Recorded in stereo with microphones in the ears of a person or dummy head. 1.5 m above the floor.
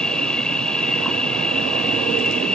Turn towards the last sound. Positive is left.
turn(degrees=10)  # may be behind; listen again after turning